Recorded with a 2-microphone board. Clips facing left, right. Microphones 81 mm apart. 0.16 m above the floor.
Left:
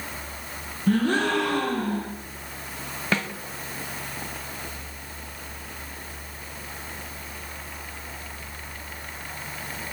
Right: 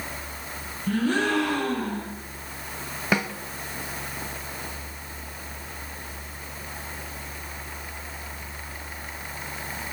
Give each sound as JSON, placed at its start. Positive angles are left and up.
{"t": 0.9, "sound": "a gasp", "side_deg": 60, "distance_m": 5.0}
{"t": 3.1, "sound": "a snare drum", "side_deg": -15, "distance_m": 1.0}